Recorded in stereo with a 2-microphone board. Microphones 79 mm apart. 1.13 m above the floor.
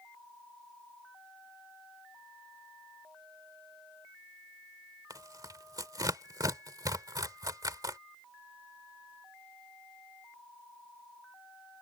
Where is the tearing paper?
55° right (ahead or behind).